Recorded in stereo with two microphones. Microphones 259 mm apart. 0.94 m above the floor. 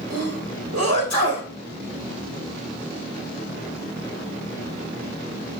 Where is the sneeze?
80° right, 3.5 m.